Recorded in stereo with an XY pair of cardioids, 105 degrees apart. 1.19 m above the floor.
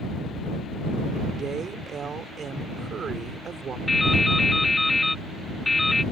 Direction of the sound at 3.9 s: 15° left.